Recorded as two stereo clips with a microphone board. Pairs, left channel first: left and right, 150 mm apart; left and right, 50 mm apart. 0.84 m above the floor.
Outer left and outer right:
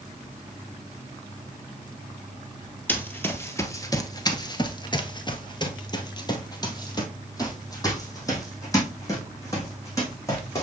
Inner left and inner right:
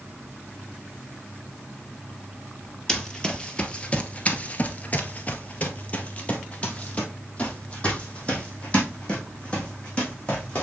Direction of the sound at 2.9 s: 10° left (ahead or behind).